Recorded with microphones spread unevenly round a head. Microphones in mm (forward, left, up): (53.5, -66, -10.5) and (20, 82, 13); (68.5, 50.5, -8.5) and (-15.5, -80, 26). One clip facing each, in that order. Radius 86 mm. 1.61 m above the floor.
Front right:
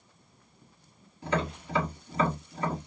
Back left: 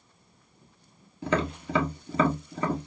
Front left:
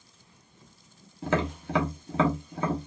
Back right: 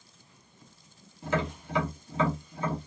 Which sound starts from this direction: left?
Tapping, at 1.2 s.